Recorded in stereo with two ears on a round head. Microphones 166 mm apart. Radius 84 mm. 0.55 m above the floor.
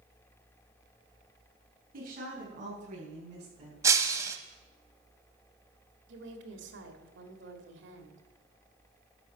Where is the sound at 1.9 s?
50° right (ahead or behind), 6 m; by 3.7 s 35° right (ahead or behind), 7 m.